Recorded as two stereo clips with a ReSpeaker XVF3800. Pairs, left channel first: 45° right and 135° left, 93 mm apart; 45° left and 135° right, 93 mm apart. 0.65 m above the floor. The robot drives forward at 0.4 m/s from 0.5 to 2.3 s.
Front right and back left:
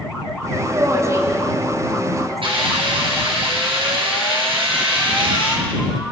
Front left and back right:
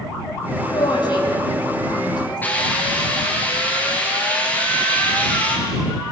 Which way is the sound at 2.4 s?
115° left.